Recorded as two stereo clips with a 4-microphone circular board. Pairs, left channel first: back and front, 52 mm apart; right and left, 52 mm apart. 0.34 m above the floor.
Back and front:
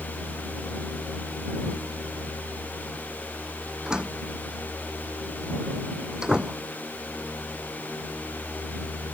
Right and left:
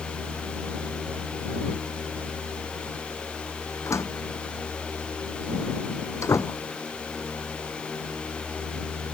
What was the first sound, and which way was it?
A door slam, 75° right.